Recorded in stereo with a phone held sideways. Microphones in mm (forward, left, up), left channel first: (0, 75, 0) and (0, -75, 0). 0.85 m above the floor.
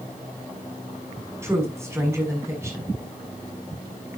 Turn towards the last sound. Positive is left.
turn(degrees=-20)  # may be behind; listen again after turning